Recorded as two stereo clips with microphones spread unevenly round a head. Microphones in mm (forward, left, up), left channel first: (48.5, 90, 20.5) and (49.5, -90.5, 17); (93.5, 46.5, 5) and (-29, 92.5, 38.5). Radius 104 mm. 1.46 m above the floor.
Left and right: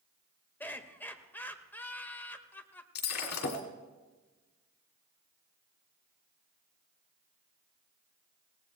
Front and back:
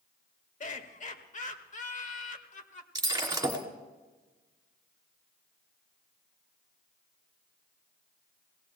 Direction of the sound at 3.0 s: 100° left.